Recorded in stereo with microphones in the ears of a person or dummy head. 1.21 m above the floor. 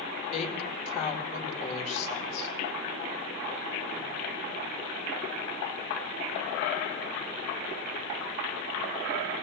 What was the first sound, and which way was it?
A woman speaking, 40° left (ahead or behind).